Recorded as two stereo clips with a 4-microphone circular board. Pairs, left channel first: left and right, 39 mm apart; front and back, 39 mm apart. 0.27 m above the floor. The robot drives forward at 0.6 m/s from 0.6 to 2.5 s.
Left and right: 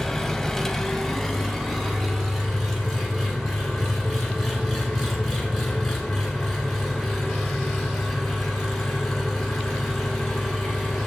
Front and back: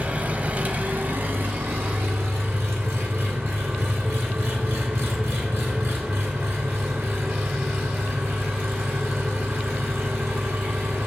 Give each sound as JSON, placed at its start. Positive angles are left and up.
{"t": 0.0, "sound": "an engine running", "azimuth_deg": 165, "distance_m": 0.7}